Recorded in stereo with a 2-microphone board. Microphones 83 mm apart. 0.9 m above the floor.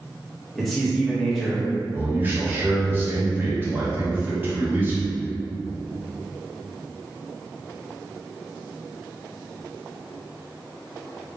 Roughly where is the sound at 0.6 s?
Centre.